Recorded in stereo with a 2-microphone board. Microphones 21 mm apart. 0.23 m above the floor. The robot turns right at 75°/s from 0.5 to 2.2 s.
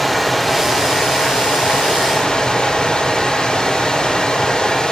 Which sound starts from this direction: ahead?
Running water, at 0.0 s.